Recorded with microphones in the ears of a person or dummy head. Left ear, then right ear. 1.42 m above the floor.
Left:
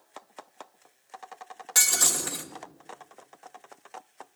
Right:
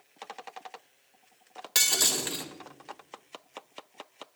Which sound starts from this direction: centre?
Breaking glass, at 1.8 s.